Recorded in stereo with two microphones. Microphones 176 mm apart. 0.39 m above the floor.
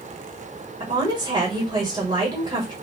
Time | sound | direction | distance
0.8 | a woman speaking | 25° right (ahead or behind) | 1.3 m